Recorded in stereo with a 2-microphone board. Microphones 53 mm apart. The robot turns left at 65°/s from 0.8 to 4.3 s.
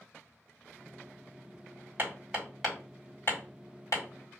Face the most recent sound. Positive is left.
turn(degrees=65)  # may be behind; listen again after turning